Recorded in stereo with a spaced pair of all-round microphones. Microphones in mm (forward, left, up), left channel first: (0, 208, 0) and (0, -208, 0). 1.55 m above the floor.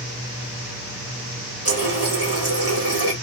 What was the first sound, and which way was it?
A running tap, 35° right (ahead or behind).